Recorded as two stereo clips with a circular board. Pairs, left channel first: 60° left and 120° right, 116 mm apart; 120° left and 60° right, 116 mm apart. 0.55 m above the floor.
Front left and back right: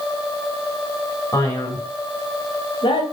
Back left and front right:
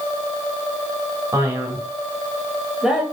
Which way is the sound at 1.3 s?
Straight ahead.